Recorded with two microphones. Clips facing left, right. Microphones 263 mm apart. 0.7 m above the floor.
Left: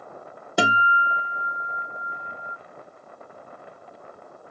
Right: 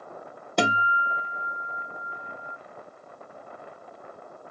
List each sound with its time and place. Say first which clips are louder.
0.6 s a guitar: left 1 dB; 5° left (ahead or behind), 0.7 m